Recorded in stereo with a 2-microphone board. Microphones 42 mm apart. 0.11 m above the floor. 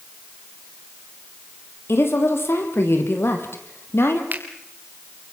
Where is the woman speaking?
70° left (ahead or behind), 3.5 m.